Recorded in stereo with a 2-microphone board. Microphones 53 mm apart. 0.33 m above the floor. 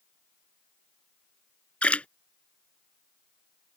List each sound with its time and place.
1.8 s a splash: 25° left (ahead or behind)